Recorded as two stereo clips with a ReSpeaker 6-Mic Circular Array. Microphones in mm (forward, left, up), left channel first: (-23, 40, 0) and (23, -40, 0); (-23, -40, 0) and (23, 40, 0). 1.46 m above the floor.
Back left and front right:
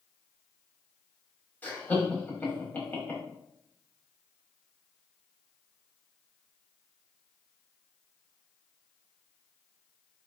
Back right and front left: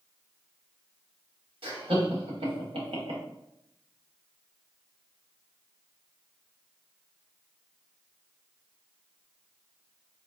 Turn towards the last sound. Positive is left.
turn(degrees=50)